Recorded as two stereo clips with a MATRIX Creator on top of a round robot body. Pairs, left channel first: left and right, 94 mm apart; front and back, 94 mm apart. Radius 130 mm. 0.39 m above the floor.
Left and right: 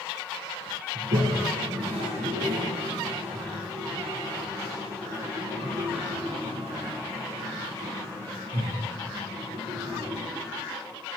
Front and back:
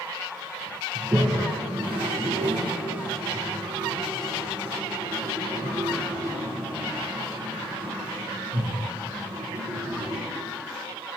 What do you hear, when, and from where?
0.9 s a toilet flushing: 100° right, 2 m